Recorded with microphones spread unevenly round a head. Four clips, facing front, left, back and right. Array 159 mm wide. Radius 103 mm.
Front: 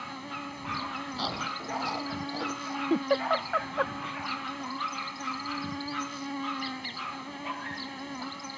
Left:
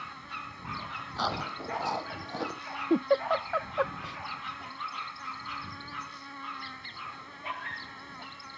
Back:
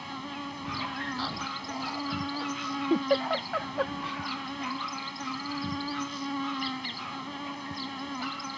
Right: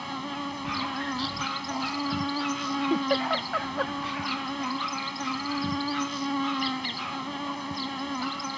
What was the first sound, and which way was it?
An insect, 80° right.